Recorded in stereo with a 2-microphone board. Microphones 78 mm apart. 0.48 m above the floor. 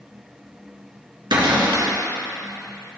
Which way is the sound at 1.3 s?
90° right.